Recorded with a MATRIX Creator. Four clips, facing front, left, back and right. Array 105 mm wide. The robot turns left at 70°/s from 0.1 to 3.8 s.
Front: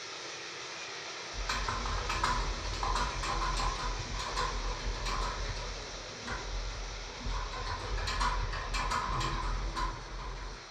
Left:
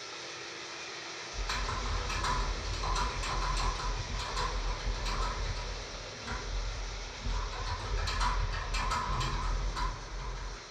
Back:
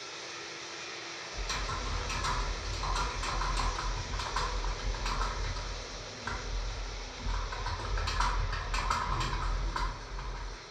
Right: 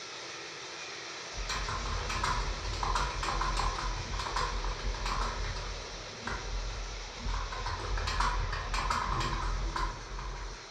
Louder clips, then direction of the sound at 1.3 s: Even, front 2 dB; 40° left.